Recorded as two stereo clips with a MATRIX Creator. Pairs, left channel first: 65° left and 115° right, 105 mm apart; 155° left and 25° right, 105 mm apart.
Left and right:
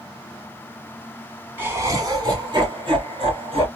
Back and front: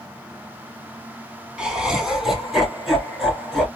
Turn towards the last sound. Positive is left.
turn(degrees=-115)